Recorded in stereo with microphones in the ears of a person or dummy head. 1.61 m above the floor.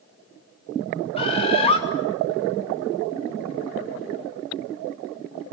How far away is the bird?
About 2.5 m.